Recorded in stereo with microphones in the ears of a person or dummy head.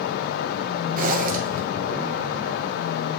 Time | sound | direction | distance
1.0 | a zipper | 50° right (ahead or behind) | 1.1 m